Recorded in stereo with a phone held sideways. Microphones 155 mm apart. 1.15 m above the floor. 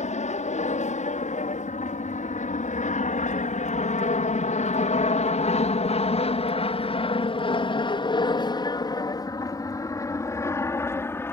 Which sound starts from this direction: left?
An aircraft, at 0.0 s.